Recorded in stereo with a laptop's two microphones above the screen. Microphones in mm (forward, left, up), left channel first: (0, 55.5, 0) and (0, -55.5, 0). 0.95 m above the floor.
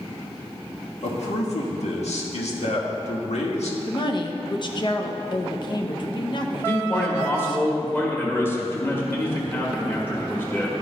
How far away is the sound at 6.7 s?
About 1.7 m.